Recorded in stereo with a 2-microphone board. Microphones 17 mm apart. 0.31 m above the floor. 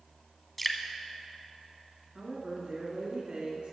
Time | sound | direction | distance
0.6 | dripping | 10° left (ahead or behind) | 1.0 m
2.1 | a woman speaking | 55° right (ahead or behind) | 3.5 m